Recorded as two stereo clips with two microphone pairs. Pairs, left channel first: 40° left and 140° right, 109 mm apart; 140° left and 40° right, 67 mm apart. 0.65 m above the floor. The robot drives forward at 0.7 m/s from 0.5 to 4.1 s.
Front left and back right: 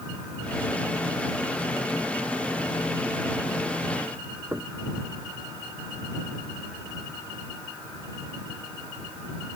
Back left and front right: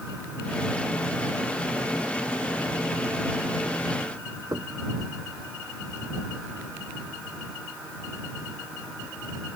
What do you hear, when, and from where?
4.5 s knocking: 70° right